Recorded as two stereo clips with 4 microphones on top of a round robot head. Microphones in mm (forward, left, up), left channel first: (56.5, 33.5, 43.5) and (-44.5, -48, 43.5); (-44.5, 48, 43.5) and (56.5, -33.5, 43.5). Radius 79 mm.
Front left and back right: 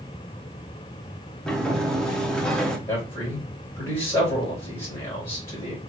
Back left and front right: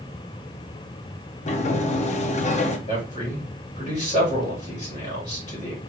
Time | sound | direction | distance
1.5 | a sliding door | 125° left | 0.8 m
2.9 | a man speaking | 110° left | 2.5 m